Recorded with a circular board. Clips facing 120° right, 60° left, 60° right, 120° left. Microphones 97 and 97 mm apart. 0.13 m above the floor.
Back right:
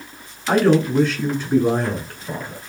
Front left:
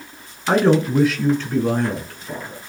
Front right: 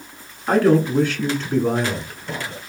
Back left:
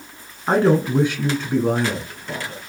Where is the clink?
No clink in this recording.